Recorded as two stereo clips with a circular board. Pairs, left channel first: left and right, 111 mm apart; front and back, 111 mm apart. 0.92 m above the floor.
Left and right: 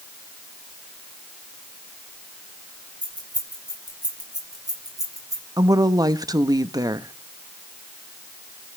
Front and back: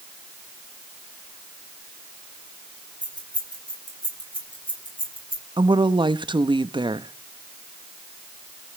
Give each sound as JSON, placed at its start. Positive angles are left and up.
{"t": 3.0, "sound": "keys jangling", "azimuth_deg": -45, "distance_m": 6.0}
{"t": 5.6, "sound": "a woman speaking", "azimuth_deg": -140, "distance_m": 0.7}